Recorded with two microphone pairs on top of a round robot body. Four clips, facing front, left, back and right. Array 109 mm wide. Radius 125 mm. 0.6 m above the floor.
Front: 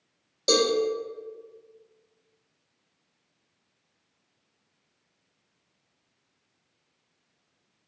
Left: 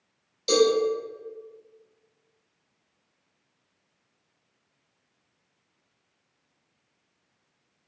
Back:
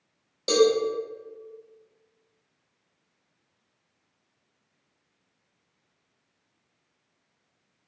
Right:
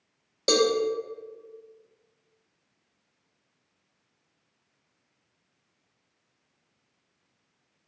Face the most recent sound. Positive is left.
turn(degrees=-90)